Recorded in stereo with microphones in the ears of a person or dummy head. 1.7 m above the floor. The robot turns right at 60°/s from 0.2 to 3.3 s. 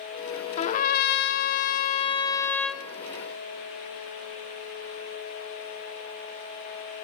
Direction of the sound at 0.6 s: 50° left.